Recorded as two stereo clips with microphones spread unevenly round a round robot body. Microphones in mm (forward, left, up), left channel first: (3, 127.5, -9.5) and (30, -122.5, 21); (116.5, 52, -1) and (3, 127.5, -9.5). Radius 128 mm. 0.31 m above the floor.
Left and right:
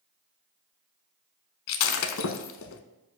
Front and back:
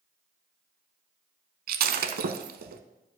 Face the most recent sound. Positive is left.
turn(degrees=140)